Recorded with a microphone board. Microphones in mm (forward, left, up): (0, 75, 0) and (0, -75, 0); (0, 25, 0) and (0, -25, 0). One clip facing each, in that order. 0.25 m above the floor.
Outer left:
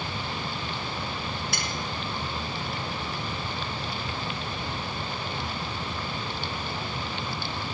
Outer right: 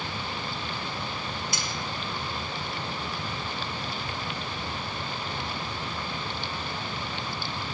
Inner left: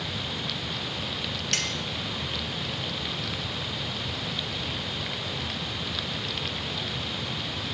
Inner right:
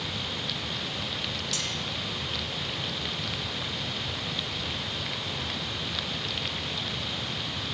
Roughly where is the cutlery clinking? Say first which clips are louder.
Outer left 1 dB, inner left 3 dB; left.